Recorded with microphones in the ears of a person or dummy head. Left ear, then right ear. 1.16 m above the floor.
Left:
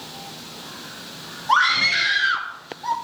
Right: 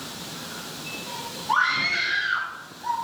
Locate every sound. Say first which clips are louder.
1.5 s a scream: left 5 dB; 40° left (ahead or behind), 1.8 m